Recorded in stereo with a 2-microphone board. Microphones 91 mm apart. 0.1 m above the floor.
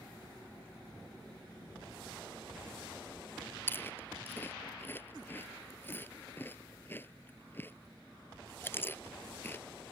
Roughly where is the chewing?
Left.